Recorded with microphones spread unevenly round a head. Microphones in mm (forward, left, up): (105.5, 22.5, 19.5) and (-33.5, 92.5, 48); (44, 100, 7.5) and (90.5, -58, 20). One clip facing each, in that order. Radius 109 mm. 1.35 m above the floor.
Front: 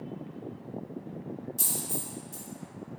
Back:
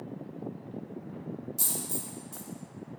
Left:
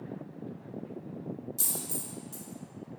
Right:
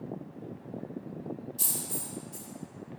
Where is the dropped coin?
85° left, 1.1 m.